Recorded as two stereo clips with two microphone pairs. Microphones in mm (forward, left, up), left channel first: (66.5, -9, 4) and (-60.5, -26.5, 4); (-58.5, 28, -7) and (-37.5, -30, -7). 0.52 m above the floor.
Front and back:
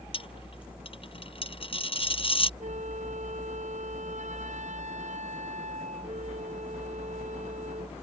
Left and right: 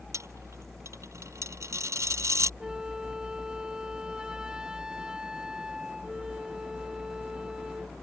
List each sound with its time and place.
0.1 s a dropped coin: 35° right
2.6 s a flute: 150° right